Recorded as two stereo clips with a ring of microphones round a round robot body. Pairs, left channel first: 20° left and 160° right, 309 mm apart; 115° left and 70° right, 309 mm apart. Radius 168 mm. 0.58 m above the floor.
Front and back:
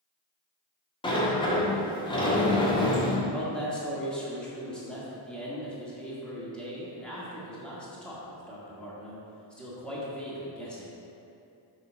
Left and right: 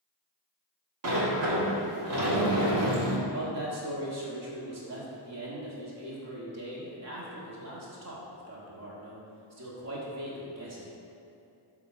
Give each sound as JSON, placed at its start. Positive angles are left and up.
{"t": 1.0, "sound": "a sliding door", "azimuth_deg": -50, "distance_m": 1.4}
{"t": 3.3, "sound": "a man speaking", "azimuth_deg": -65, "distance_m": 1.6}